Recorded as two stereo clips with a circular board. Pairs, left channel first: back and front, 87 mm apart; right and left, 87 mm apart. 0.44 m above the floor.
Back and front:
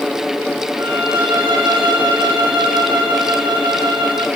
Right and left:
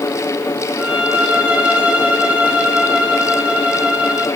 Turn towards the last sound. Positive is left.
turn(degrees=15)